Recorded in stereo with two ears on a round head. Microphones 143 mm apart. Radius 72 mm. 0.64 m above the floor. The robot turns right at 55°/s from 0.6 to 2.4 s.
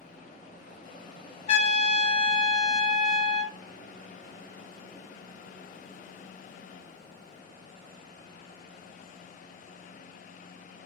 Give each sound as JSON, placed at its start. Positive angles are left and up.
{"t": 1.5, "sound": "a trumpet", "azimuth_deg": 85, "distance_m": 0.7}